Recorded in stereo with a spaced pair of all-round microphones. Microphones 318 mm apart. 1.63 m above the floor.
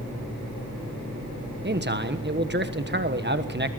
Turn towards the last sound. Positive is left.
turn(degrees=-35)  # may be behind; listen again after turning